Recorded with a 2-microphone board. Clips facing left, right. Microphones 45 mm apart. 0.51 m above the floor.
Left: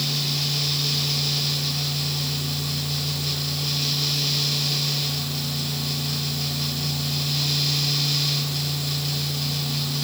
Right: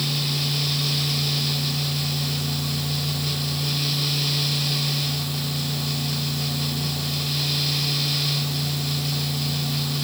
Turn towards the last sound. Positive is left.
No sound to turn to.